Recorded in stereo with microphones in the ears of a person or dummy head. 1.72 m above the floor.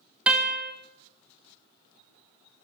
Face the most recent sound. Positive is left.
turn(degrees=-5)  # may be behind; listen again after turning